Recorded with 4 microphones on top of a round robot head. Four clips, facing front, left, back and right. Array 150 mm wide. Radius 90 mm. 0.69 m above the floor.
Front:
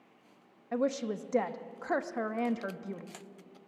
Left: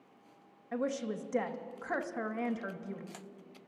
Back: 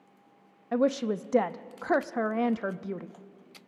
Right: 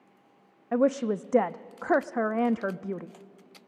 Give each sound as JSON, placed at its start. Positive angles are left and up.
{"t": 0.7, "sound": "a woman speaking", "azimuth_deg": -115, "distance_m": 0.7}